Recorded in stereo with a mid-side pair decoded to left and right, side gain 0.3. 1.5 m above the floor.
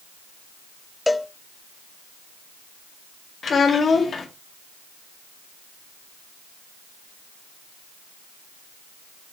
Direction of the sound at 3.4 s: 65° left.